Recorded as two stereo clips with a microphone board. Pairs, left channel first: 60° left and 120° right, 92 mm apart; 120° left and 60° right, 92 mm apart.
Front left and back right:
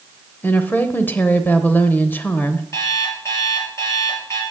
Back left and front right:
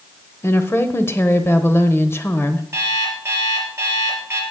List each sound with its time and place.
0.4 s a woman speaking: 100° left, 0.9 m
2.7 s an alarm clock: straight ahead, 3 m